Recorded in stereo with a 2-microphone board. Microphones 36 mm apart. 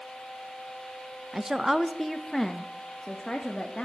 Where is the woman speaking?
15° right (ahead or behind), 0.6 m; by 3.9 s 20° left (ahead or behind), 1.5 m.